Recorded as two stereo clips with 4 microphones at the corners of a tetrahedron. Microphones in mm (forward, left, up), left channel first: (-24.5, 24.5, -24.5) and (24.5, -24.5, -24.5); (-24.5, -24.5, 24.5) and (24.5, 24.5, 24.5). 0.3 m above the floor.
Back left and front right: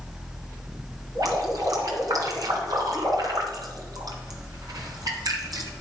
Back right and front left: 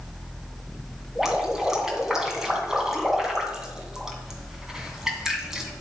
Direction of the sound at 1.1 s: 35° right.